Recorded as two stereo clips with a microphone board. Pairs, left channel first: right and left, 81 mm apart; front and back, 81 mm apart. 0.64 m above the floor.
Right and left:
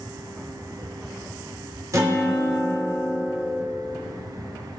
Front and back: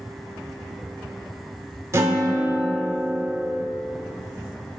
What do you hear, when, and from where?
1.9 s a guitar: 130° left, 2 m